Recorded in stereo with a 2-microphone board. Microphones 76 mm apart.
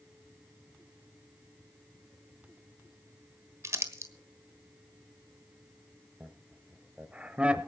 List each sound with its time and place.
3.6 s crumpling: 40° right (ahead or behind), 1.4 m
6.2 s laughter: 15° right (ahead or behind), 1.2 m